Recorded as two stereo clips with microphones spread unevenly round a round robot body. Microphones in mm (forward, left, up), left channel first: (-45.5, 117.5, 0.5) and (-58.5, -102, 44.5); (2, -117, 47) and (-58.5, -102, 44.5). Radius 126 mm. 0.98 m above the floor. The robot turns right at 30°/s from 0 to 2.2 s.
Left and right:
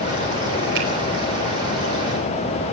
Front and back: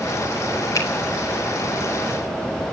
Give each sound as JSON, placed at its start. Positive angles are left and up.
{"t": 0.8, "sound": "a finger snap", "azimuth_deg": -45, "distance_m": 5.0}